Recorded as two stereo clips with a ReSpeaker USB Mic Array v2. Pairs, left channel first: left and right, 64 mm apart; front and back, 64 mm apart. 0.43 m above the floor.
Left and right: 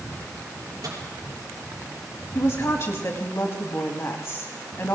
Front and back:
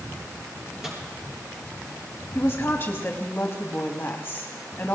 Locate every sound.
0.8 s a microwave: 100° right, 6 m
2.4 s a woman speaking: 50° left, 2.5 m